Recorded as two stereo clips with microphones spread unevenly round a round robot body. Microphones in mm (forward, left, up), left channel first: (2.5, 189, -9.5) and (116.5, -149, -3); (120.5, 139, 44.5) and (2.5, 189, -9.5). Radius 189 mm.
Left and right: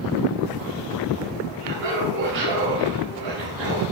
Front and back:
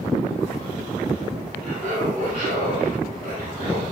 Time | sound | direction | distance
1.6 | laughter | 140° right | 6 m